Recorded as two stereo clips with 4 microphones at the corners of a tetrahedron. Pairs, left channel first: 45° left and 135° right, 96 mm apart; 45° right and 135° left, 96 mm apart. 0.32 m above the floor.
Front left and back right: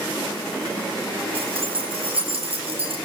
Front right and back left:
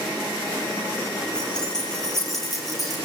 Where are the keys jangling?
125° right, 4.5 m; by 3.0 s 135° right, 4.5 m.